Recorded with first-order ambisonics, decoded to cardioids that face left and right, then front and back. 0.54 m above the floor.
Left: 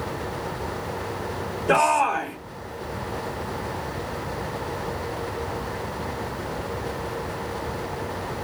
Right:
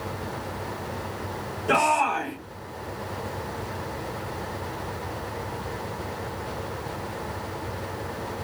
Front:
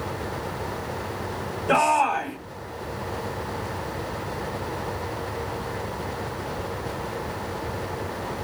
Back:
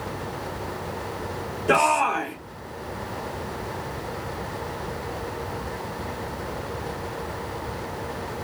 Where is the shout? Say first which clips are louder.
Left 2 dB, even; 170° right, 1.0 m.